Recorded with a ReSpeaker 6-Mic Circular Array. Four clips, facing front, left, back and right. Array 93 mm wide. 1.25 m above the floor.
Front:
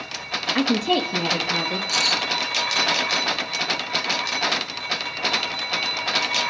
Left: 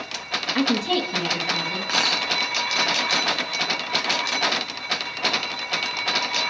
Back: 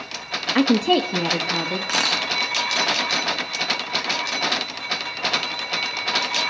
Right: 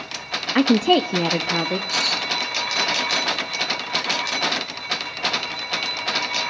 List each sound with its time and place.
0.6 s a woman speaking: 120° right, 0.6 m; by 1.8 s 95° right, 1.2 m
1.9 s a camera shutter: 145° left, 1.6 m